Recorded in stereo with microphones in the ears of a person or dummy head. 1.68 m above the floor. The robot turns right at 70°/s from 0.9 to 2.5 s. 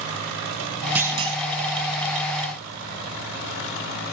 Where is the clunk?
170° right, 1.3 m; by 1.4 s 140° right, 1.3 m.